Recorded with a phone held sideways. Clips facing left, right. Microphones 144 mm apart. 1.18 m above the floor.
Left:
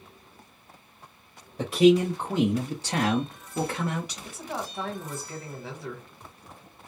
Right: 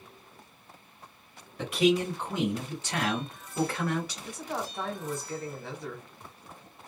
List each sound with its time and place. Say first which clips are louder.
1.6 s a man speaking: left 6 dB; 25° left (ahead or behind), 0.9 m; by 4.2 s 15° left (ahead or behind), 1.1 m
4.2 s a woman speaking: even; 5° left (ahead or behind), 1.1 m